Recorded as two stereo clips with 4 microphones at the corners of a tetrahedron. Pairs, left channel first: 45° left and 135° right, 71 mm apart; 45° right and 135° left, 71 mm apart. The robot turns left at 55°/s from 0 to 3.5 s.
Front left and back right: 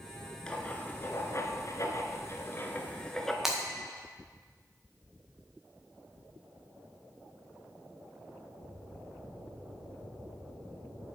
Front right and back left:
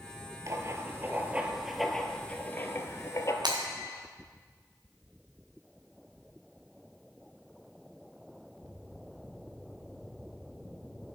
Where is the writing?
120° left, 1.1 m; by 3.3 s 40° right, 1.1 m.